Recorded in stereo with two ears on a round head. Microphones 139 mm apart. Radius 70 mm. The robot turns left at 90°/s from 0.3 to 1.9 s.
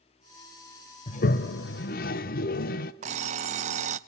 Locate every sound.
1.1 s a toilet flushing: 135° left, 0.7 m; by 2.9 s 60° left, 0.7 m
3.0 s an alarm clock: 45° right (ahead or behind), 0.5 m